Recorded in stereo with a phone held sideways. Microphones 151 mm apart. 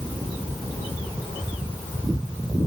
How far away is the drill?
No drill in this recording.